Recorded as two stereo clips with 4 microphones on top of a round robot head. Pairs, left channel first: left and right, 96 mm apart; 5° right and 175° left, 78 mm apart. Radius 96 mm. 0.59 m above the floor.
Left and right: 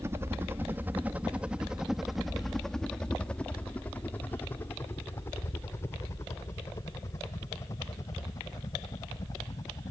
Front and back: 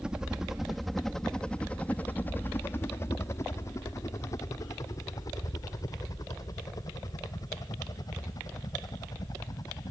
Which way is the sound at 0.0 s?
115° right.